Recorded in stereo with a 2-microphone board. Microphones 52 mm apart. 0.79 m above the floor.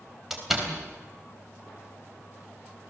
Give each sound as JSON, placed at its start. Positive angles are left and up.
{"t": 0.3, "sound": "a door slam", "side_deg": -5, "distance_m": 3.5}